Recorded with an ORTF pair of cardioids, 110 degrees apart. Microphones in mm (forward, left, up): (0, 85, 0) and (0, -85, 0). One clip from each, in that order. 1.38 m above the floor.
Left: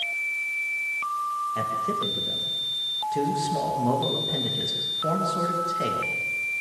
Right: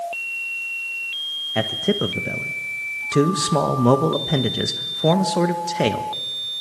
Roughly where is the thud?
No thud in this recording.